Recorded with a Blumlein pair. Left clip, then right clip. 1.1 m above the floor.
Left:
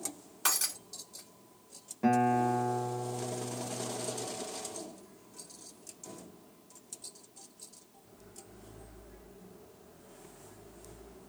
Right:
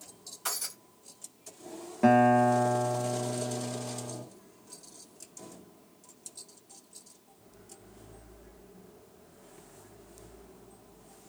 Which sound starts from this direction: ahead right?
A guitar, at 2.0 s.